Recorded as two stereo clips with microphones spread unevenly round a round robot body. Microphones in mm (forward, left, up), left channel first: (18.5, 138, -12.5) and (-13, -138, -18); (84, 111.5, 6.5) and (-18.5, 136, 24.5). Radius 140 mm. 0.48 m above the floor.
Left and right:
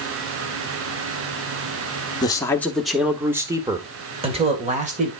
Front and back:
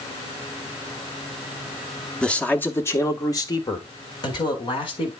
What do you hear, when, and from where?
2.2 s a man speaking: 25° left, 1.1 m; by 5.1 s 35° right, 2 m